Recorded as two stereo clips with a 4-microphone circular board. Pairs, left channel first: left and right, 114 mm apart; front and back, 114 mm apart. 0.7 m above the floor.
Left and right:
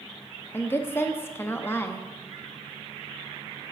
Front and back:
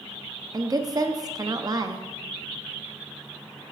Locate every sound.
0.5 s a woman speaking: 150° left, 0.7 m